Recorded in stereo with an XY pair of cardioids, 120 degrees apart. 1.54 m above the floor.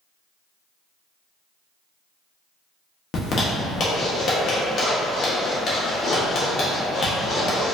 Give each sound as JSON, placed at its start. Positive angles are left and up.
{"t": 3.1, "sound": "a zipper", "azimuth_deg": 45, "distance_m": 1.1}